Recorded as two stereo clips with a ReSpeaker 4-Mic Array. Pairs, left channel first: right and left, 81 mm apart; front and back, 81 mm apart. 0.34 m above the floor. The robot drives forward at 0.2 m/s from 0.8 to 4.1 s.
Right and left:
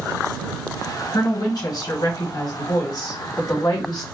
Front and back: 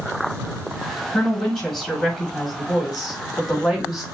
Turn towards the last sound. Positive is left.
turn(degrees=-100)